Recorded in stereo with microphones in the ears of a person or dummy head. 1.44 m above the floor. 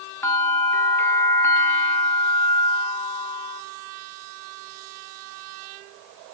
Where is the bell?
10° left (ahead or behind), 0.7 m.